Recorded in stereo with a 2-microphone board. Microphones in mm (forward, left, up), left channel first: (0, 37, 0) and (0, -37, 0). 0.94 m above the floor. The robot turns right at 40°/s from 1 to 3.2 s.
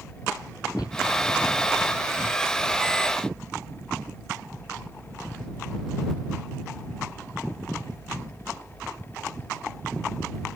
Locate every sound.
0.8 s a shout: 70° left (ahead or behind)